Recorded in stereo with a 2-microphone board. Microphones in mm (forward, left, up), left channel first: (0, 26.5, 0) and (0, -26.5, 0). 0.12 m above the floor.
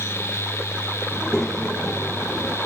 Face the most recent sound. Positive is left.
turn(degrees=5)  # may be behind; listen again after turning